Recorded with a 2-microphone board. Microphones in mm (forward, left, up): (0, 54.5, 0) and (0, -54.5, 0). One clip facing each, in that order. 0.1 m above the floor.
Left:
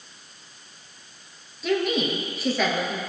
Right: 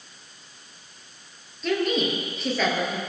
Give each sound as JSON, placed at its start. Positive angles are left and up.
{"t": 1.6, "sound": "a woman speaking", "side_deg": 5, "distance_m": 2.5}